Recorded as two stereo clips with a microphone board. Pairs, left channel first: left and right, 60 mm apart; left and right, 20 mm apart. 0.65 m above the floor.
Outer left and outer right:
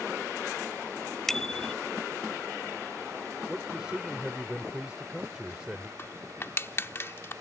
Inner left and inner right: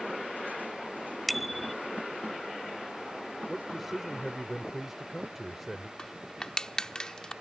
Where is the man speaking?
15° right (ahead or behind).